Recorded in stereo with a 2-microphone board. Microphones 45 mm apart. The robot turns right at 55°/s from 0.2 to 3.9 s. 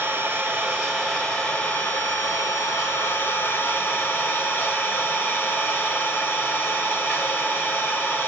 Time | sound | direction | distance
0.0 | an engine running | 50° right | 6.5 m